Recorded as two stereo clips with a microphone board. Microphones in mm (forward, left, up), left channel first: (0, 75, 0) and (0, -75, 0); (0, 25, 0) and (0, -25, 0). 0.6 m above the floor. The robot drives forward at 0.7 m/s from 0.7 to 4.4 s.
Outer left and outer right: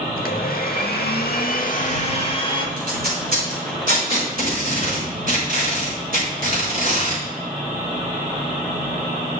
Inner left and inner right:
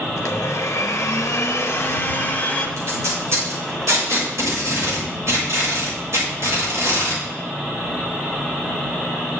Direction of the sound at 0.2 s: 70° left (ahead or behind).